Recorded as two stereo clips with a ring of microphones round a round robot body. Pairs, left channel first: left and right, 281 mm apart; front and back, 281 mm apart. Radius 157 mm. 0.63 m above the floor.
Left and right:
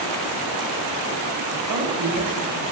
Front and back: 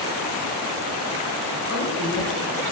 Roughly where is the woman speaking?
Ahead right.